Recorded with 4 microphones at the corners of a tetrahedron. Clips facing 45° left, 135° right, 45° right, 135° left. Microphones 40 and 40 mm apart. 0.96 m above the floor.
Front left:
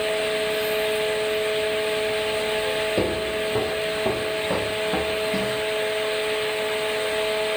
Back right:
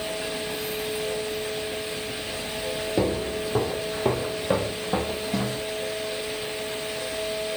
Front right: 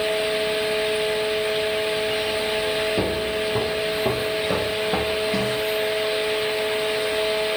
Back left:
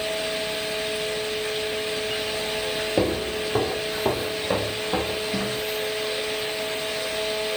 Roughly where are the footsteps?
Behind left.